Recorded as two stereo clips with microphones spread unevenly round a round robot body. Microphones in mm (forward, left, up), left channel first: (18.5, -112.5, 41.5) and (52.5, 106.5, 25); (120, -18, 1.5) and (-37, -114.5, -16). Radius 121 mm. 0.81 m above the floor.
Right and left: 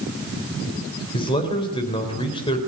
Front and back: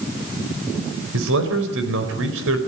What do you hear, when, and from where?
1.1 s a man speaking: 170° right, 4 m